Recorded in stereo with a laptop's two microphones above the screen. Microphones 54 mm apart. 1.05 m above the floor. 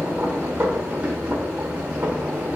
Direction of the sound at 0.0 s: 30° right (ahead or behind).